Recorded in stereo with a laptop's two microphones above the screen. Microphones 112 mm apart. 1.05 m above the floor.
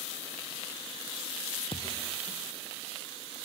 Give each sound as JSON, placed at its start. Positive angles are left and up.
{"t": 1.7, "sound": "a thud", "side_deg": 55}